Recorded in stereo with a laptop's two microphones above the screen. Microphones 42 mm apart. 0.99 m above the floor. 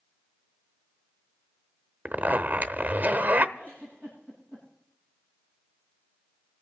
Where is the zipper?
40° right (ahead or behind), 0.8 m.